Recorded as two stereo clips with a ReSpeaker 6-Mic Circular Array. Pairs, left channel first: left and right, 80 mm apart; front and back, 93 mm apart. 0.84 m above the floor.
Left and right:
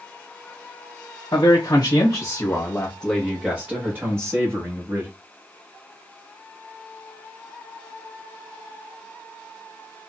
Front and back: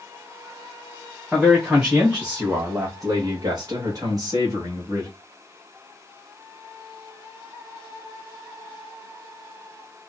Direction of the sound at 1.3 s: 95° left.